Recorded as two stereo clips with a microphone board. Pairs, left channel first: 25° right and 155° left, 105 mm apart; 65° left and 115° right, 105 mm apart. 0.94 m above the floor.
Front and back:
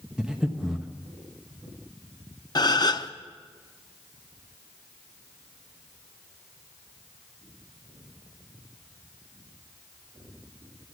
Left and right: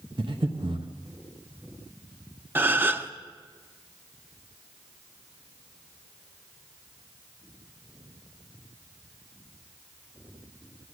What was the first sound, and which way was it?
Breathing, 120° right.